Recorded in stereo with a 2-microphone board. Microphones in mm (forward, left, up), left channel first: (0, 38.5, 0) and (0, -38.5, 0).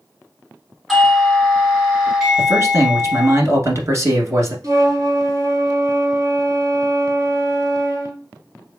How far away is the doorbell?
About 1.9 m.